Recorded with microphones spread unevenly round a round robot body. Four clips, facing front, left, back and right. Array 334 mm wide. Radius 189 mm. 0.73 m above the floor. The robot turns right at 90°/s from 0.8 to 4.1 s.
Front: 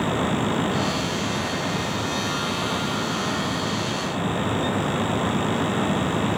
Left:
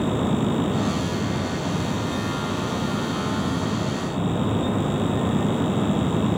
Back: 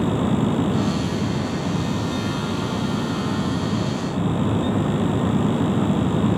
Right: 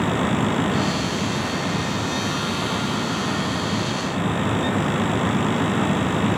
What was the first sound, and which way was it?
Only background noise.